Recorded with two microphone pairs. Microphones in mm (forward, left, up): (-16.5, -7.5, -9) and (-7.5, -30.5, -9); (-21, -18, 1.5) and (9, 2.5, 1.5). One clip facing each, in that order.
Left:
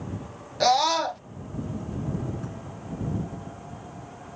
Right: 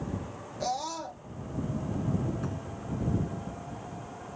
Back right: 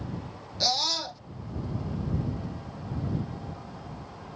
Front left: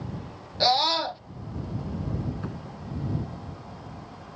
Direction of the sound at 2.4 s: 5° left.